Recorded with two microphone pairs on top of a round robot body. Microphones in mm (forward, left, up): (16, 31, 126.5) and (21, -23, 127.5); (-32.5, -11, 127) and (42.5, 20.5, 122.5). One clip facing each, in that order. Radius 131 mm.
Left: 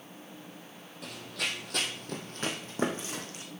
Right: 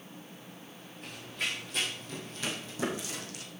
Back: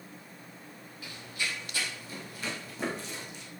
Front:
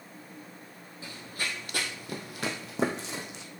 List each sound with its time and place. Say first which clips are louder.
1.0 s running footsteps: left 1 dB, front 1 dB; 85° left, 1.2 m; by 3.4 s 35° left, 1.8 m